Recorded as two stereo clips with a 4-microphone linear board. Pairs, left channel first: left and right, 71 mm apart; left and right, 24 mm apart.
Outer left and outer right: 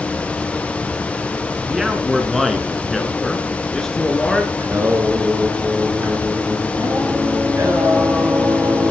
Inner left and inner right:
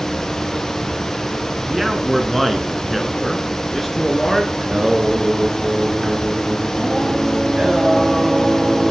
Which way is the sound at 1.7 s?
5° right (ahead or behind).